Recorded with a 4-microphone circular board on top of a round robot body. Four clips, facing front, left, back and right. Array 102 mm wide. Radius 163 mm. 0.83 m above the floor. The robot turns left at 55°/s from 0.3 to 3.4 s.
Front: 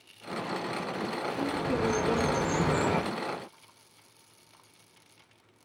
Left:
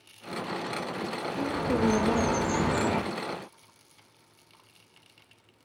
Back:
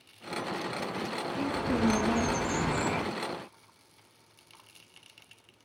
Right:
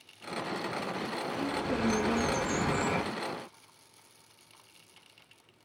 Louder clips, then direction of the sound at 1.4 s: Left 5 dB, back 1 dB; 115° left.